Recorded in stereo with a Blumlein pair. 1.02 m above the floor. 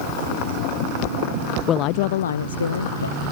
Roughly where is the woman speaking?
Ahead left.